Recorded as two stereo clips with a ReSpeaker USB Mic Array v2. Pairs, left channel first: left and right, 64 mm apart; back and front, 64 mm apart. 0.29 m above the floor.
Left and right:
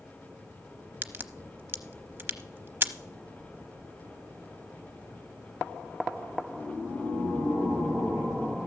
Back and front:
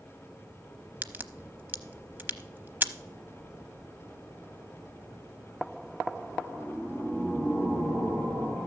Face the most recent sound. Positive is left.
turn(degrees=-50)